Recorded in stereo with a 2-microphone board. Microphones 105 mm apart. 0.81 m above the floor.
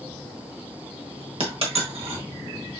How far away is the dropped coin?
About 1.3 m.